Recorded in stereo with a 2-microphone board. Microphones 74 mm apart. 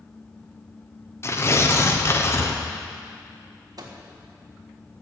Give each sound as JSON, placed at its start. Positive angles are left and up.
{"t": 1.2, "sound": "tearing paper", "side_deg": 40, "distance_m": 1.0}
{"t": 3.8, "sound": "a microwave", "side_deg": -60, "distance_m": 1.4}